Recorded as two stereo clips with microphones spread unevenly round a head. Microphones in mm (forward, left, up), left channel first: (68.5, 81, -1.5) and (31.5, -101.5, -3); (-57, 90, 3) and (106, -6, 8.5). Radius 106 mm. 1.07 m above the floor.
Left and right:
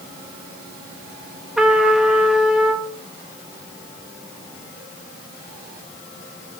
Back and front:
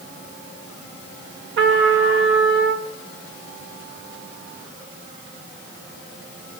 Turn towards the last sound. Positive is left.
turn(degrees=-15)